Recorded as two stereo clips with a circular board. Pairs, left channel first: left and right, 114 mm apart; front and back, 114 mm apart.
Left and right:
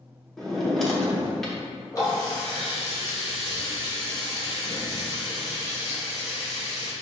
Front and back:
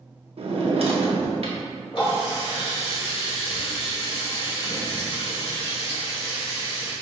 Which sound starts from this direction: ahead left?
A running tap, at 1.9 s.